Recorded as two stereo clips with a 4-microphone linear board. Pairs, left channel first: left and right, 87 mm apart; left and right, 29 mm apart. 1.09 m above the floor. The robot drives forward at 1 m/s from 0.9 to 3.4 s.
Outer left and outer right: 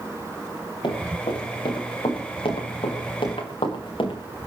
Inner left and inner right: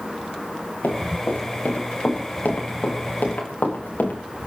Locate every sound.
0.8 s running footsteps: 65° left (ahead or behind), 10 m; by 4.2 s 70° left (ahead or behind), 6.5 m